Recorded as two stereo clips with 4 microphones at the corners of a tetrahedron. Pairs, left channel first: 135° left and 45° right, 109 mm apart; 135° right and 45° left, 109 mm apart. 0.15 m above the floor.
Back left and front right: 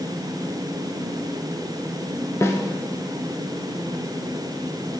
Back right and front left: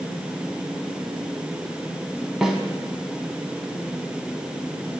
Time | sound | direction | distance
2.4 | a snare drum | 125° left | 0.6 m